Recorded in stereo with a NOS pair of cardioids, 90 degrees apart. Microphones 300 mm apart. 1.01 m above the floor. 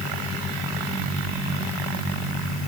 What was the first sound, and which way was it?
Only background noise.